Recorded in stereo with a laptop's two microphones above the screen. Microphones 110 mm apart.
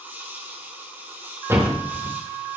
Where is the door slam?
25° right (ahead or behind), 3 m.